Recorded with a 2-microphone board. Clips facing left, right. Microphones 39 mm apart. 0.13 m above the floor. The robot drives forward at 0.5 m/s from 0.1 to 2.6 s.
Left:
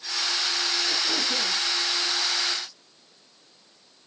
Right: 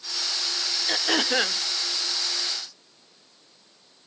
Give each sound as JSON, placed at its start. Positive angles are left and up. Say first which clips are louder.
{"t": 0.9, "sound": "throat clearing", "louder": "right 3 dB", "side_deg": -80}